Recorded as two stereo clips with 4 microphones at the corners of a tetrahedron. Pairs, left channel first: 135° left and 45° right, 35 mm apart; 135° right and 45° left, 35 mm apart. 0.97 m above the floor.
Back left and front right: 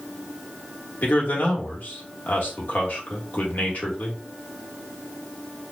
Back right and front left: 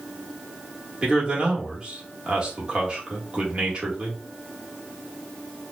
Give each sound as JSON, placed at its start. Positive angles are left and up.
{"t": 1.0, "sound": "a man speaking", "azimuth_deg": 110, "distance_m": 1.8}